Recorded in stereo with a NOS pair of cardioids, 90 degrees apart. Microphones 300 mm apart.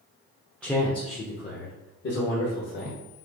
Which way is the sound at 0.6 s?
5° left.